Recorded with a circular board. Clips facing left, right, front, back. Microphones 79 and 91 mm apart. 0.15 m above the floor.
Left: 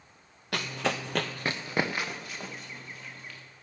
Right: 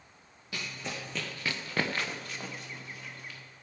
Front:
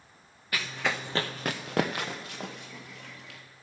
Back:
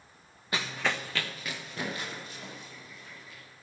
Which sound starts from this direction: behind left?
Running footsteps, at 0.5 s.